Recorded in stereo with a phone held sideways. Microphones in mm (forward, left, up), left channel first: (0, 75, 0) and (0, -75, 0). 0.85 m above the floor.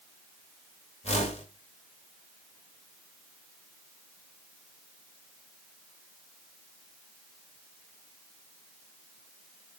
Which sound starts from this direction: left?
A whoosh, at 1.0 s.